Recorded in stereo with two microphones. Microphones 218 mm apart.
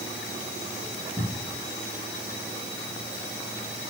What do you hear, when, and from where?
1.2 s a cupboard door: 15° left (ahead or behind), 4 m